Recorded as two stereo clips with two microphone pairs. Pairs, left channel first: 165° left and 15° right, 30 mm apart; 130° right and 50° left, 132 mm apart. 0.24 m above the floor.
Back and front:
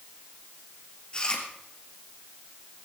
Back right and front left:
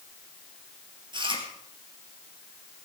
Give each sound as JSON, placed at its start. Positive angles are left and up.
{"t": 1.1, "sound": "chewing", "azimuth_deg": 105, "distance_m": 3.0}